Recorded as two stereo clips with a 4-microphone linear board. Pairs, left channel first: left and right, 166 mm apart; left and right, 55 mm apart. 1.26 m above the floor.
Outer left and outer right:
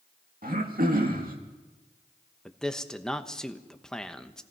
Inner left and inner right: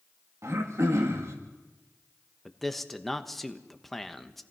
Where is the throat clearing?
60° right (ahead or behind), 2 m.